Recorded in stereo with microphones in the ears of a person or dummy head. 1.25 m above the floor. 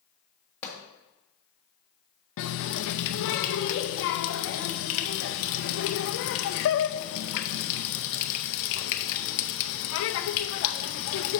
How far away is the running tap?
About 0.6 m.